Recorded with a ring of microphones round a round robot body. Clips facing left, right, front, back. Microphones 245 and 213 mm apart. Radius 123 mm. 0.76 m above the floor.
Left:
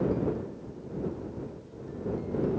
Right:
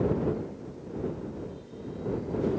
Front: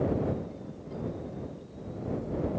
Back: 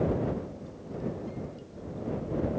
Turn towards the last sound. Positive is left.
No sound to turn to.